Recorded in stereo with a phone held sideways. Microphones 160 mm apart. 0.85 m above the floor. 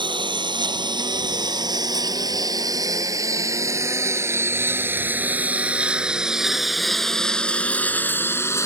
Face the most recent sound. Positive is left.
turn(degrees=20)  # may be behind; listen again after turning